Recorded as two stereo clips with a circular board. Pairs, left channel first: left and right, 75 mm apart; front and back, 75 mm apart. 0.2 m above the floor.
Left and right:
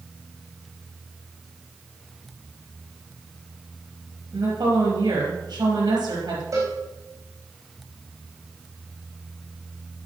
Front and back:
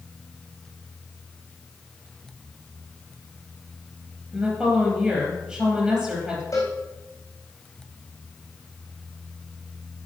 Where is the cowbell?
50° right, 4 m.